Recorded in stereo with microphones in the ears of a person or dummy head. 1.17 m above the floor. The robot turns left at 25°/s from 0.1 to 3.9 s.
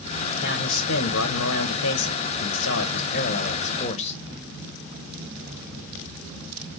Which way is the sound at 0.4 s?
120° left.